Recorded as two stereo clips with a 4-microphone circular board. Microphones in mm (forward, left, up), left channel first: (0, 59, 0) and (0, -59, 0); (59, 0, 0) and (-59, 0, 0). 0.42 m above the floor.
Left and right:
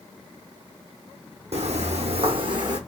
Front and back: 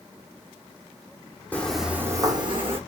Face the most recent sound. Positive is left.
turn(degrees=-145)